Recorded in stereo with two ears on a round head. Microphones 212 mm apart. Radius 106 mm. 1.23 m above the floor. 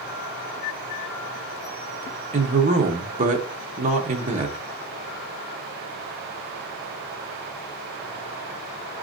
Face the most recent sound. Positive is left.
turn(degrees=-30)  # may be behind; listen again after turning